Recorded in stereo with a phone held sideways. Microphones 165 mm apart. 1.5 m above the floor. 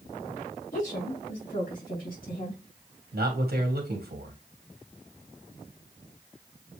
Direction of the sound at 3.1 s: 70° right (ahead or behind).